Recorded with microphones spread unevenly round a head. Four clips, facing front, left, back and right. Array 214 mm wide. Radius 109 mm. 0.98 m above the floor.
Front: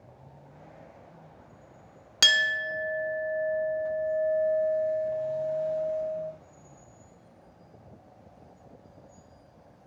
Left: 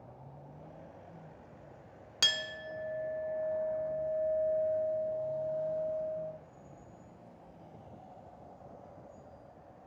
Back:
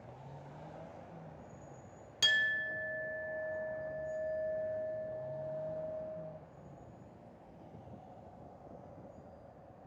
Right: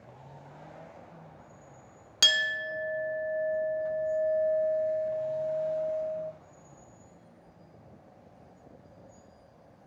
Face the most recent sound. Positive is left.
turn(degrees=-30)